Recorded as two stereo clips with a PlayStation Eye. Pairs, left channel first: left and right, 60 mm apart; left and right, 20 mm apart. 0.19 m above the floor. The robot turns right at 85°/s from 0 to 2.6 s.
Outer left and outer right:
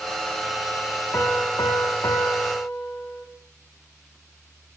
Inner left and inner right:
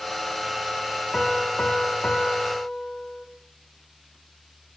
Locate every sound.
1.1 s a piano: 35° left, 4.5 m; by 3.3 s 160° left, 4.5 m